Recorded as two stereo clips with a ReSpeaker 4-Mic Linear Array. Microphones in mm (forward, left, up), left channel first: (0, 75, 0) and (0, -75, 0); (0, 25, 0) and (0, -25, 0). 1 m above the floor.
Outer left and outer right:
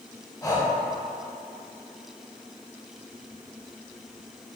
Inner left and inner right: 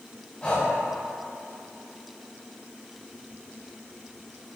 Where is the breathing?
25° left (ahead or behind), 0.7 m.